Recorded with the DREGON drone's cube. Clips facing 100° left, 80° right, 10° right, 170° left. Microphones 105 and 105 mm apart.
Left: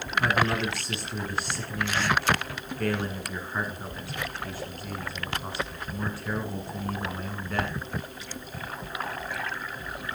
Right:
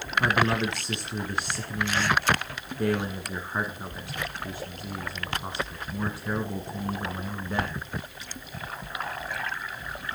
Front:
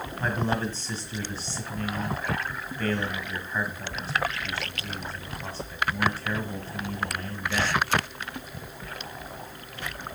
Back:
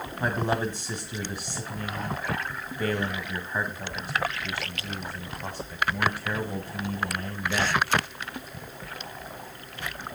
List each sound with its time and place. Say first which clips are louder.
0.2 s a man speaking: right 1 dB, back 1 dB; 130° right, 1.6 m